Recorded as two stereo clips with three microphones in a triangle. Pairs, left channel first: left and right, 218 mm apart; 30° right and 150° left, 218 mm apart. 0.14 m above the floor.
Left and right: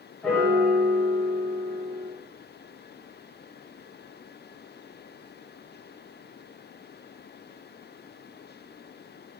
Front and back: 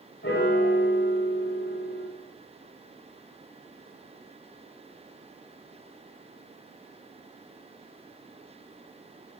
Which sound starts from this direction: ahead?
A piano, at 0.2 s.